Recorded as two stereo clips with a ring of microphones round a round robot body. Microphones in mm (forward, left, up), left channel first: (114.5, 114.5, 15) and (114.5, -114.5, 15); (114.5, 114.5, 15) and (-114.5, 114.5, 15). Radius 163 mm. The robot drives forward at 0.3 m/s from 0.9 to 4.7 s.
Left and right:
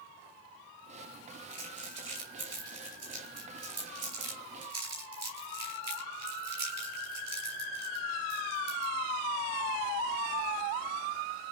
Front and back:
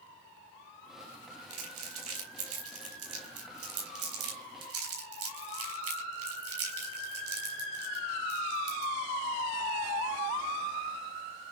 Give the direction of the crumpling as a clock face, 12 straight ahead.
6 o'clock.